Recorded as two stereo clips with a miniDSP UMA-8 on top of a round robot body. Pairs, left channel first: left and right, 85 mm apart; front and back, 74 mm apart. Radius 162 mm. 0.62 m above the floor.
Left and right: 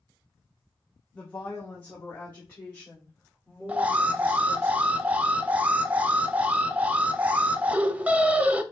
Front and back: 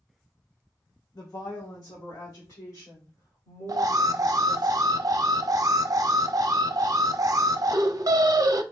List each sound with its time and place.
1.1 s a woman speaking: 20° left, 1.0 m; by 4.7 s 25° left, 3.5 m
3.7 s an alarm: 160° right, 0.6 m